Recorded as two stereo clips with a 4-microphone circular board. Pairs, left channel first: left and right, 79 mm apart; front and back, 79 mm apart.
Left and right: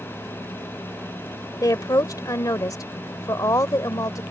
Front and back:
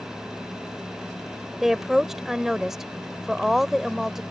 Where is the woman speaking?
95° left.